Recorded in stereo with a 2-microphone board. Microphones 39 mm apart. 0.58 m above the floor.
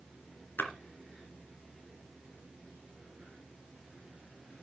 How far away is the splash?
About 2.5 m.